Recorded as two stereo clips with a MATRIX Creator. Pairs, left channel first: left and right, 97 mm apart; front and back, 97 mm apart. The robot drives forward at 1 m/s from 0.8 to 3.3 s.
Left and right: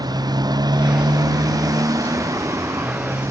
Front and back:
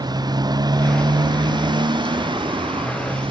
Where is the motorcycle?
135° right; by 3.3 s 150° right.